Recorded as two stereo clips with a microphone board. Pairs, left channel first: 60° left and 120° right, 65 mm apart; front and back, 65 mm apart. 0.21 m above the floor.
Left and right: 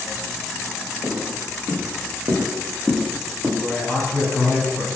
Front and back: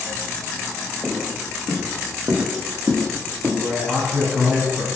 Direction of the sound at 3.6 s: 110° left.